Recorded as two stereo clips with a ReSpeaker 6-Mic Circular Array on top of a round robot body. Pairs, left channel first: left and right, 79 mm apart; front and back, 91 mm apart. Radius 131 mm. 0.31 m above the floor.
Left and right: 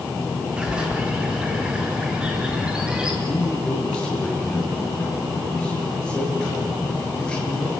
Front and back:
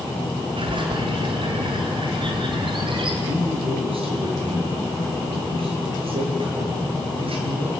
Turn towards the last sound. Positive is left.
turn(degrees=170)